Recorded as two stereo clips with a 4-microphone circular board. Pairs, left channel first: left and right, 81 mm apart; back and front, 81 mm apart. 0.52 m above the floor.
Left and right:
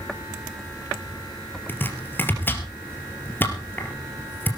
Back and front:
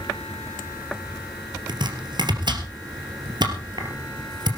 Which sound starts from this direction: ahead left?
Chopping, at 1.7 s.